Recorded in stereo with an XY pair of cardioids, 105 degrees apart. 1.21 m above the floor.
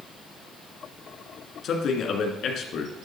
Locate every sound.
1.6 s a man speaking: 70° left, 1.6 m